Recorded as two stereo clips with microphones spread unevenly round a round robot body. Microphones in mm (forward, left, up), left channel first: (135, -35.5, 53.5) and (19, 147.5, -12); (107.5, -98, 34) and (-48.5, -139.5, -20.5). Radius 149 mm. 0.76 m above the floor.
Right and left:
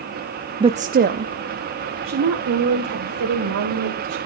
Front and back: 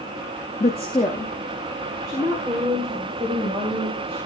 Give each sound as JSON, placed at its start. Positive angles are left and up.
{"t": 0.6, "sound": "a woman speaking", "azimuth_deg": 80, "distance_m": 0.5}